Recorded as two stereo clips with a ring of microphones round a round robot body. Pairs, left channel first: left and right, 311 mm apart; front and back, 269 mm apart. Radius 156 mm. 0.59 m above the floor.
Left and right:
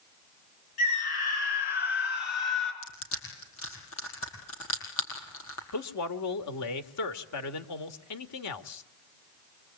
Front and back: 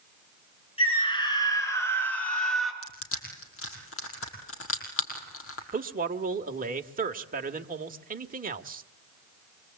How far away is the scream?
About 8 m.